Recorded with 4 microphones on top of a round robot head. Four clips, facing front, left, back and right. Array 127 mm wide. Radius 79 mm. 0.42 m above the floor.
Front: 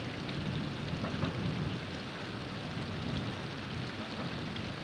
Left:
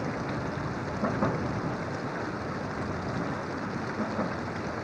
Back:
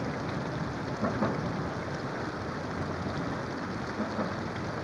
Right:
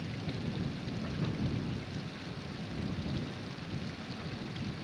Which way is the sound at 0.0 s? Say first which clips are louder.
Left 8 dB, back 6 dB; 125° left.